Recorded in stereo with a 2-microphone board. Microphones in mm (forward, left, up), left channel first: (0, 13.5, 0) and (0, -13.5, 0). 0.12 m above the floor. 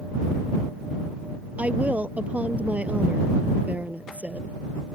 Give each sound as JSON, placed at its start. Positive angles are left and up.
{"t": 1.6, "sound": "a woman speaking", "side_deg": -60}